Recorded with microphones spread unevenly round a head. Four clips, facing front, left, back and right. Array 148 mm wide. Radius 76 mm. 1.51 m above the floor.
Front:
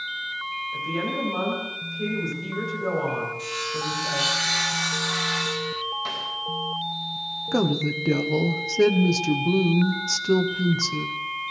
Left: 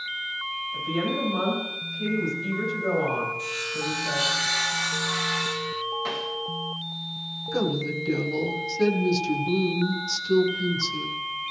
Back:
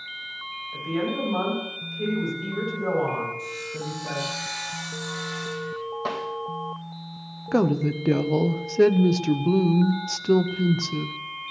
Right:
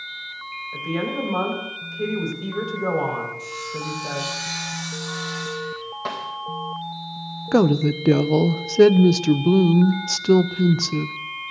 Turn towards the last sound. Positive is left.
turn(degrees=-80)